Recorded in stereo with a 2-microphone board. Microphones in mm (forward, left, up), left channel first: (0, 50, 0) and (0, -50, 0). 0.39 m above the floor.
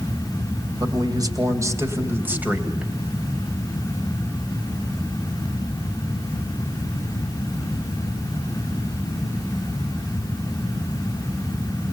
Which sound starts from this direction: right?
A man speaking, at 0.8 s.